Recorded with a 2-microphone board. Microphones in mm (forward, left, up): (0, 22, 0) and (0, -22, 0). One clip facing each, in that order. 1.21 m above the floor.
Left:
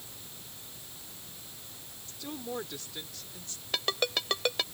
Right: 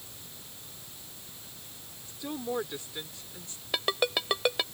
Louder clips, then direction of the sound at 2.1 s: Right 4 dB; 20° right (ahead or behind).